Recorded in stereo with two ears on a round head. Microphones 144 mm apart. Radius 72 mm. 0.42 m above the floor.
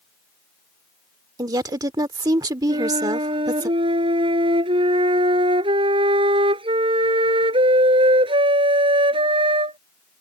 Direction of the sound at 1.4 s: 25° right (ahead or behind).